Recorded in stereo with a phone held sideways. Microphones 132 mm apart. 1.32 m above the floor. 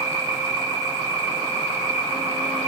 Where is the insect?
25° right (ahead or behind), 5 m.